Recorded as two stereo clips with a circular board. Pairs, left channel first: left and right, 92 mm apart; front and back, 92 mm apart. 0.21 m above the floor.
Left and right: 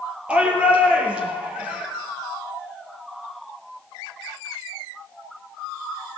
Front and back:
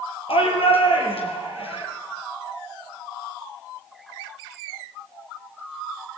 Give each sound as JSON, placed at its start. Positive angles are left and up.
{"t": 0.3, "sound": "a shout", "azimuth_deg": -10, "distance_m": 5.5}